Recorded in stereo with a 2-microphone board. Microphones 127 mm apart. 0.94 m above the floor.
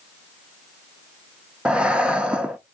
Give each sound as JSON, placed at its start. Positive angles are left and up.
{"t": 1.6, "sound": "breathing", "side_deg": -5, "distance_m": 0.5}